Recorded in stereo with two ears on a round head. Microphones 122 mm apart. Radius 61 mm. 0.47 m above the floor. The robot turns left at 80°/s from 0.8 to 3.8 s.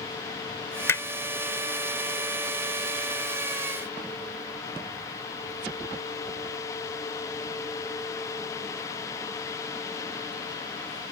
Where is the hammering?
20° left (ahead or behind); by 1.1 s 30° left (ahead or behind).